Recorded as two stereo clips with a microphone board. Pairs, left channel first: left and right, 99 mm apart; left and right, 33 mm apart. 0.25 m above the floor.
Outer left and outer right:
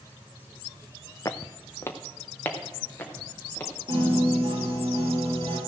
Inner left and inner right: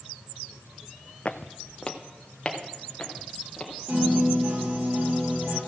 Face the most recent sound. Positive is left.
turn(degrees=-60)  # may be behind; listen again after turning